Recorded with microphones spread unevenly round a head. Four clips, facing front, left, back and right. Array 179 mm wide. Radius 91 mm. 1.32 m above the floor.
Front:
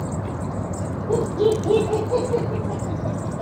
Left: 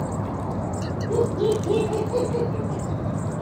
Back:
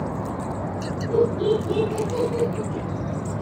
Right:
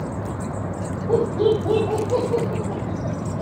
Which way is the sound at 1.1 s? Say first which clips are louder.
Right 3 dB, even; 65° right.